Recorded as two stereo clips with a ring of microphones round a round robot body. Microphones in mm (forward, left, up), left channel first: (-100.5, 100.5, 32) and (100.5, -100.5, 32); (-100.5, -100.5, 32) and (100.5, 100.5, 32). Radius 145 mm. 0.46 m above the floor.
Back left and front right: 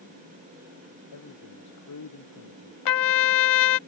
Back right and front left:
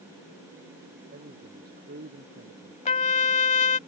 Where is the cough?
No cough in this recording.